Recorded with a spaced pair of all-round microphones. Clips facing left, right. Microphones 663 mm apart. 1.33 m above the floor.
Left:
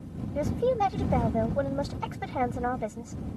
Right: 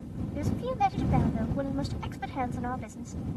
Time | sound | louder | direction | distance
0.3 | a woman speaking | left 6 dB | 80° left | ?